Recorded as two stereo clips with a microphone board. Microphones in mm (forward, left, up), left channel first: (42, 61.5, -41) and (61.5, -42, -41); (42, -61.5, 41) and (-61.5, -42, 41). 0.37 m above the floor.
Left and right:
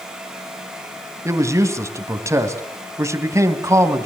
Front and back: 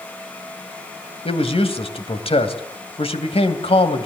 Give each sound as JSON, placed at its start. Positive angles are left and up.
{"t": 1.2, "sound": "a man speaking", "azimuth_deg": -20, "distance_m": 2.5}